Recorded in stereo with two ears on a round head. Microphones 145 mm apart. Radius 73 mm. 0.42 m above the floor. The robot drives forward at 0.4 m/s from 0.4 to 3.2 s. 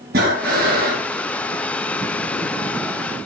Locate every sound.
0.1 s breathing: 60° right (ahead or behind), 8 m